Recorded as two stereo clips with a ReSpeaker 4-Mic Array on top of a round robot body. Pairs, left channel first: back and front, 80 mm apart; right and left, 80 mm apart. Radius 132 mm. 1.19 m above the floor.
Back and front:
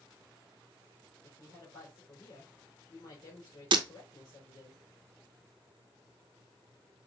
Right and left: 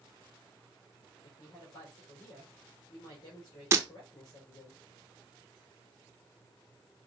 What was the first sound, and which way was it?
A woman speaking, 135° right.